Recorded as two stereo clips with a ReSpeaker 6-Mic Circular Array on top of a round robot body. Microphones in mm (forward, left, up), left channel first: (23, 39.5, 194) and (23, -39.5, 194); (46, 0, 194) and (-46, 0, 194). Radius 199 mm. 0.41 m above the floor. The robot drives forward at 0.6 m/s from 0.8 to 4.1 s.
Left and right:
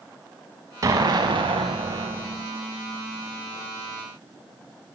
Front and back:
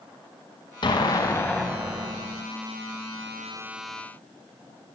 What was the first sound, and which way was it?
An explosion, 40° right.